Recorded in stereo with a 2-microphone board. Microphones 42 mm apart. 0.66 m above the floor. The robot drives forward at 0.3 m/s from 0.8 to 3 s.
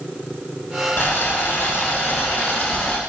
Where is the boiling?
70° left (ahead or behind), 1.8 m; by 3.0 s 55° left (ahead or behind), 2 m.